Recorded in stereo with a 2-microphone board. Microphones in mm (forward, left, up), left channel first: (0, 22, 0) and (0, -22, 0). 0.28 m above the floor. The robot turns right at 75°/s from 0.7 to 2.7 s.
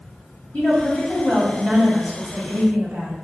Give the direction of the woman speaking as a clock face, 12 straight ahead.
8 o'clock.